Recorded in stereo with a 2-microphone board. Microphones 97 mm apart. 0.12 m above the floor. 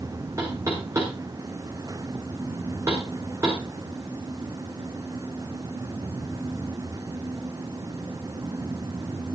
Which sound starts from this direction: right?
Knocking, at 0.4 s.